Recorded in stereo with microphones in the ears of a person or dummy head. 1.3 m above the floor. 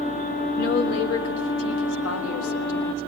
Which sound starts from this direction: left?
A woman speaking, at 0.6 s.